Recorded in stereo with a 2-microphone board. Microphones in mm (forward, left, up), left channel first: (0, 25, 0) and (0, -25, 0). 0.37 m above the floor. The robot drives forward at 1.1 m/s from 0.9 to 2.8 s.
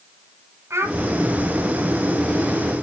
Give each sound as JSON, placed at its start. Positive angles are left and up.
{"t": 0.7, "sound": "a child speaking", "side_deg": -65, "distance_m": 1.9}